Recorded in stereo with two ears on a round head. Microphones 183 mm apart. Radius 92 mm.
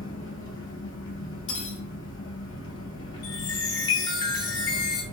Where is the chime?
20° left (ahead or behind), 1.0 m.